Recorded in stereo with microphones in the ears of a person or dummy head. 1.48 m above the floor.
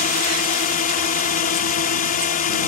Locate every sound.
0.0 s a drone: 40° left (ahead or behind)